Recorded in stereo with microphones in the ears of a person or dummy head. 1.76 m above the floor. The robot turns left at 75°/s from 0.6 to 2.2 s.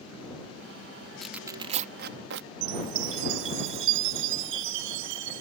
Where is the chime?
75° right (ahead or behind).